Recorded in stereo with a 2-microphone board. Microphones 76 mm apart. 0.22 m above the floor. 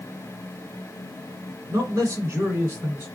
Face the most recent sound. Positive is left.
turn(degrees=-25)  # may be behind; listen again after turning